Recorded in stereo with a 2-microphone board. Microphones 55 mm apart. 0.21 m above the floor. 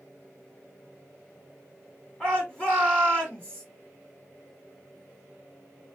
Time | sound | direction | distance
2.2 | a shout | 20° left (ahead or behind) | 1.8 m